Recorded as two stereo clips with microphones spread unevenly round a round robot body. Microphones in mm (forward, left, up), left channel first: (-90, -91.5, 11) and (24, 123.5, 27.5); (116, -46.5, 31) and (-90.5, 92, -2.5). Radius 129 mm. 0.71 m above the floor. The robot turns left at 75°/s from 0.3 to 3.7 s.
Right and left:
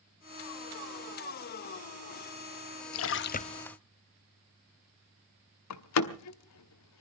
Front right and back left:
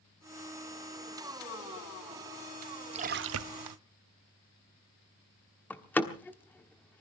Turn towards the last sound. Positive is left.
turn(degrees=-120)